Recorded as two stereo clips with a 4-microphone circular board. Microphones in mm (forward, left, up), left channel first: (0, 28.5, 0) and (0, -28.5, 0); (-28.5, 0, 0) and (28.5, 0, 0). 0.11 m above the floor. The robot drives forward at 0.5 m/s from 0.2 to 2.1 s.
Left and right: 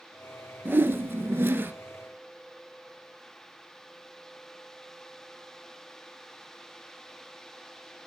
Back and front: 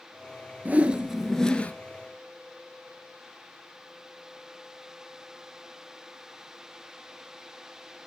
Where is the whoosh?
50° right, 0.6 m; by 1.7 s 125° right, 0.6 m.